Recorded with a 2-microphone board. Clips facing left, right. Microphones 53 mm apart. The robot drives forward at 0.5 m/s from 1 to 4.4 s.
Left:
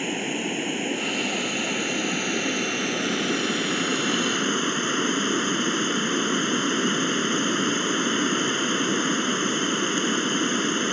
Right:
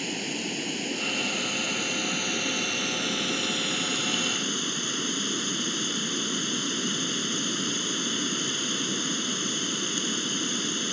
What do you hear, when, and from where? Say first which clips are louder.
0.0 s running water: left 5 dB; 25° left (ahead or behind); by 10.9 s 35° left (ahead or behind)